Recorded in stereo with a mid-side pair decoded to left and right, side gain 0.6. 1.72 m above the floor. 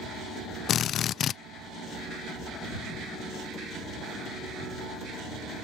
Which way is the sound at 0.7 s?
50° left.